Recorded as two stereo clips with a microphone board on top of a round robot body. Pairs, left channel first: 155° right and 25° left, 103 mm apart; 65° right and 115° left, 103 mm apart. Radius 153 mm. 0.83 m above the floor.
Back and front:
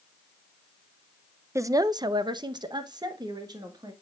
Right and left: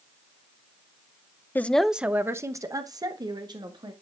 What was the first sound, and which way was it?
A woman speaking, 15° right.